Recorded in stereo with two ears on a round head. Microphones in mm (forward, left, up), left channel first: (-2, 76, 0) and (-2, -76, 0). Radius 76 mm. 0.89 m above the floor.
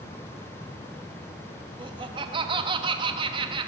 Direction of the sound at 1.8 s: 30° right (ahead or behind).